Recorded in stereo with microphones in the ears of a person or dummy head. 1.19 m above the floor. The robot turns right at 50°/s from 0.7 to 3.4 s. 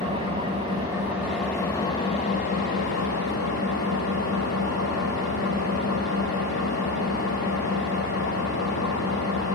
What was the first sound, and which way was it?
An engine running, 30° right.